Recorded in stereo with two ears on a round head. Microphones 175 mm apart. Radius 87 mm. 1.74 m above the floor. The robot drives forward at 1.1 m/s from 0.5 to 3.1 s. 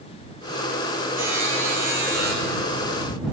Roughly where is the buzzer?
Centre.